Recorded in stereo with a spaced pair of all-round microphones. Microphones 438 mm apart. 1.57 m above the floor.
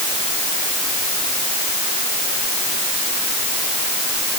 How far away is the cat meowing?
No cat meowing in this recording.